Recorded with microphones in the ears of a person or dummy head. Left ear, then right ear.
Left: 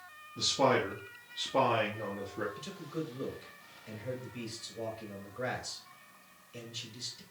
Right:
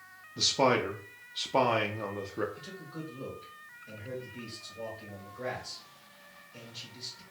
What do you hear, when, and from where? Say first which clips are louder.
0.4 s a man speaking: right 2 dB; 40° right (ahead or behind), 0.6 m
2.6 s a man speaking: left 3 dB; 85° left, 3 m